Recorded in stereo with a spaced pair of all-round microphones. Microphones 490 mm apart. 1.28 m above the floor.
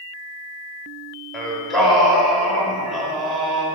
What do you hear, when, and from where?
1.3 s singing: centre (ahead or behind), 1.3 m